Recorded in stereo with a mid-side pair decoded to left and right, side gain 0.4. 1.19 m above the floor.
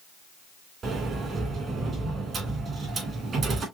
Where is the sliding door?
55° right, 2.5 m.